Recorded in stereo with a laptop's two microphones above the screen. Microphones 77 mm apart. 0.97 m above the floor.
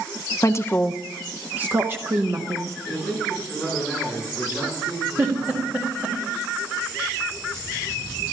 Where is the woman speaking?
45° left (ahead or behind), 0.6 m; by 2.8 s 35° right (ahead or behind), 1.5 m.